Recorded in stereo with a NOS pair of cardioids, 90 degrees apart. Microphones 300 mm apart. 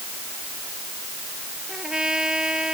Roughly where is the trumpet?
Ahead.